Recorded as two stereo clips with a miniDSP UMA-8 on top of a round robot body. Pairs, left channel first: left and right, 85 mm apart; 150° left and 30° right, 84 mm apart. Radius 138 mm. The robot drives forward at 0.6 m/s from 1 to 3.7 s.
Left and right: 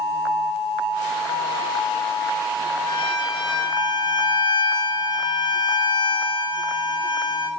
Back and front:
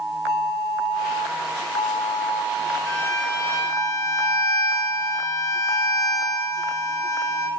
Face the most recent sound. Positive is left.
turn(degrees=110)